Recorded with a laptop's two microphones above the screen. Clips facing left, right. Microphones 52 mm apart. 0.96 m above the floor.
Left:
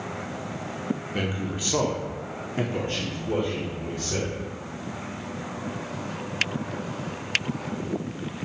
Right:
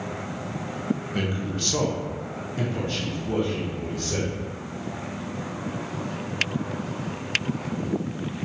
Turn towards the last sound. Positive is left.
turn(degrees=25)  # may be behind; listen again after turning